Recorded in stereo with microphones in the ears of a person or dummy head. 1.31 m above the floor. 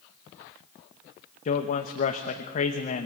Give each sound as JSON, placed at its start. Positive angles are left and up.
{"t": 1.4, "sound": "a man speaking", "side_deg": 40, "distance_m": 1.1}